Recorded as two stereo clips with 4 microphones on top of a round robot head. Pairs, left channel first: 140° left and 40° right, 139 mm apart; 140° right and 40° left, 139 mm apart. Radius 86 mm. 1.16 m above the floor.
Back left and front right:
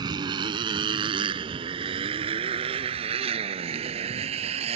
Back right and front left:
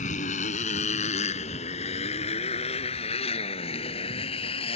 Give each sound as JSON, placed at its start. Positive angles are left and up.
{"t": 0.0, "sound": "a motorcycle", "azimuth_deg": -100}